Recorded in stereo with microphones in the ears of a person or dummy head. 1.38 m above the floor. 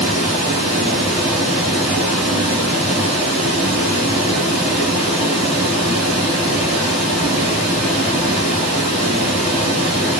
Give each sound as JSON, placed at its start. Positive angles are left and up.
{"t": 0.0, "sound": "running water", "side_deg": 0, "distance_m": 1.6}